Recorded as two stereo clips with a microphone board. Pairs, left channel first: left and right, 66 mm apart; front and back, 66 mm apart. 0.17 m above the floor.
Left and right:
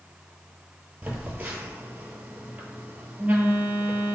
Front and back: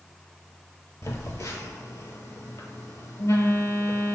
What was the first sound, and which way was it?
A phone buzzing, 25° right.